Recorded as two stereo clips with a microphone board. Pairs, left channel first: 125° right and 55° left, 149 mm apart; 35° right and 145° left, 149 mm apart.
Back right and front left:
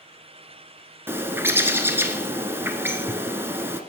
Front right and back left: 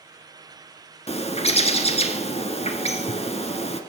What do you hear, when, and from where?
1.1 s a bird: 15° right, 1.1 m